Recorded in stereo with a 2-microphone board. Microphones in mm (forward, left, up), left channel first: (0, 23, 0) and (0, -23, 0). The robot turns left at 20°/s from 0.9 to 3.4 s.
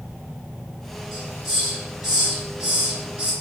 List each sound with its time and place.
1.1 s a hiss: 5° right (ahead or behind), 1.9 m; by 3.3 s 25° right (ahead or behind), 1.9 m